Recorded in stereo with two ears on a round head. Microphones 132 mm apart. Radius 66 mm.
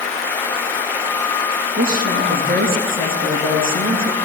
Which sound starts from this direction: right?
A woman speaking, at 1.8 s.